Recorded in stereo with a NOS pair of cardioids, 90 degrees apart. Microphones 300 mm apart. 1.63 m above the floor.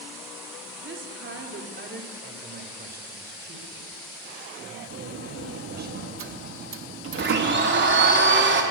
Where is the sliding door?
45° right, 3 m.